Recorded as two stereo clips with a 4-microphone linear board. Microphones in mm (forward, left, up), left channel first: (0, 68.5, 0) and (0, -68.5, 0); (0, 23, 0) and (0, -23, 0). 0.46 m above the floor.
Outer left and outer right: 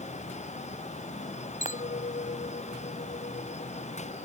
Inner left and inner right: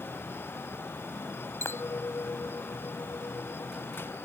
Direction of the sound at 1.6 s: 75° left (ahead or behind).